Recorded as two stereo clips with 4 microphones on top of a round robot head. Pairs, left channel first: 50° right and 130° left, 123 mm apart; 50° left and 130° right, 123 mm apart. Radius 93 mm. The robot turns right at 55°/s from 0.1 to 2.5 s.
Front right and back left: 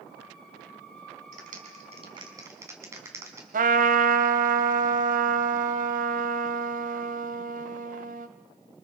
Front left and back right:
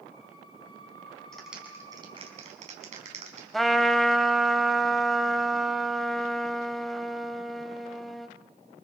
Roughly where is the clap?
Behind left.